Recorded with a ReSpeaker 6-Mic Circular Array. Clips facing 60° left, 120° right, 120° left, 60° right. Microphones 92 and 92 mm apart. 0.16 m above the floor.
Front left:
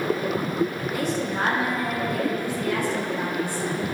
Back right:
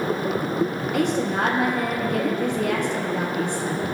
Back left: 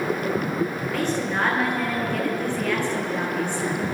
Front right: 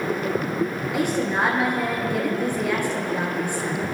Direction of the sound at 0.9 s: 135° right.